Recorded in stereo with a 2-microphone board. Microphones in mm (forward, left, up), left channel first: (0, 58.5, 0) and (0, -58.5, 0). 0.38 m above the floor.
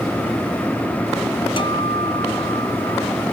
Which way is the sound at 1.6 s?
50° left (ahead or behind).